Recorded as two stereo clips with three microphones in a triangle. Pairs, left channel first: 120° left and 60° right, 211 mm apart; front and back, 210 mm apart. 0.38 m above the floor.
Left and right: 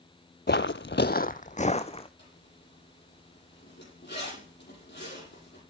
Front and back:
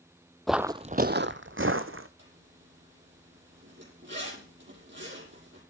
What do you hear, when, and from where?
0.5 s footsteps: 90° left, 0.7 m; by 2.1 s straight behind, 1.7 m
2.2 s a zipper: 155° left, 8.5 m